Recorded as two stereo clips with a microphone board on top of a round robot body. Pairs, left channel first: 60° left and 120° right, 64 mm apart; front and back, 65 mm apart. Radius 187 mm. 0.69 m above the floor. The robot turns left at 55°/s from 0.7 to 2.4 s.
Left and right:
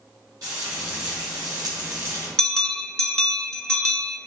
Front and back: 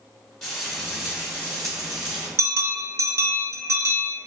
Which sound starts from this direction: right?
Frying, at 0.4 s.